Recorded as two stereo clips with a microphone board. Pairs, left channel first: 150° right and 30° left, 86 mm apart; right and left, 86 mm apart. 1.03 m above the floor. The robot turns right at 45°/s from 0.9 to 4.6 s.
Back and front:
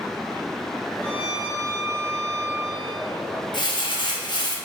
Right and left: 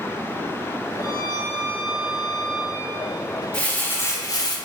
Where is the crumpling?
165° right, 0.6 m; by 4.6 s 120° right, 0.6 m.